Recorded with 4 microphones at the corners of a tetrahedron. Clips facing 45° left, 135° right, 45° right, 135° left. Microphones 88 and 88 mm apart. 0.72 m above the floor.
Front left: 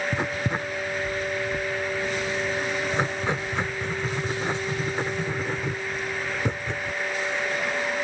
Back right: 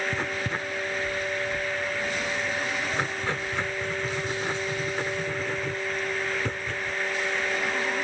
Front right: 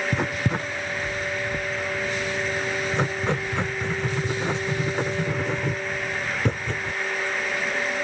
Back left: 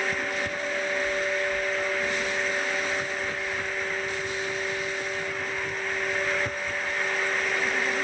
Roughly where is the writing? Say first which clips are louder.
Front left 3 dB, front right 4 dB; ahead right.